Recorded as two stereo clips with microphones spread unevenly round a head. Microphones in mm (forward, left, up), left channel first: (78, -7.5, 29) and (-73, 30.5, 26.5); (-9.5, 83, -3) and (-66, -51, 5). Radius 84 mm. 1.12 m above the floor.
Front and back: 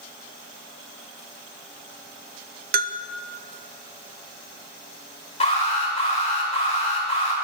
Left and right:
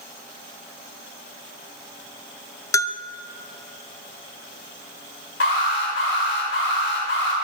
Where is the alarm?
35° left, 4.5 m.